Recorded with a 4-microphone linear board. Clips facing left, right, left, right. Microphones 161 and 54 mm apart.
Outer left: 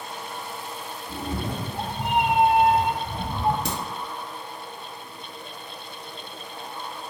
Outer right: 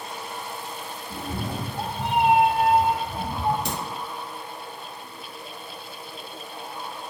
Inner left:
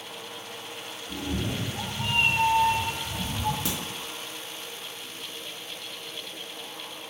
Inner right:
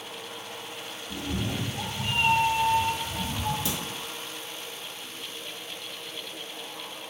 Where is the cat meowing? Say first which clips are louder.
Outer left 1 dB, inner left 1 dB; 55° left (ahead or behind), 1.2 m; by 3.5 s 25° left (ahead or behind), 0.6 m.